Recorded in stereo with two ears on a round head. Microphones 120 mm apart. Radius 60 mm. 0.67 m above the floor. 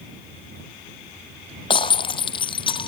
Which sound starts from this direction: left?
Breaking glass, at 1.7 s.